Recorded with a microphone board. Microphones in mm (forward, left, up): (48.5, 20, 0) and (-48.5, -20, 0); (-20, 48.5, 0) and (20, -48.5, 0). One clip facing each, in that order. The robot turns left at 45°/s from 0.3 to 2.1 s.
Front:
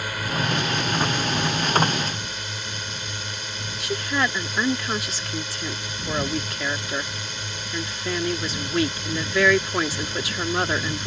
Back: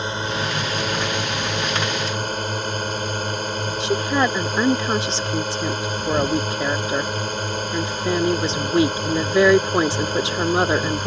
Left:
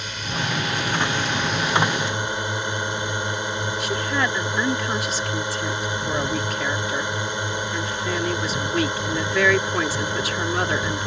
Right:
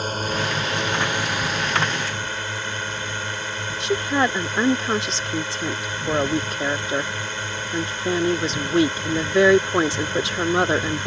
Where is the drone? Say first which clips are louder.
Back 2 dB, right 4 dB; 100° right; by 11.1 s straight behind.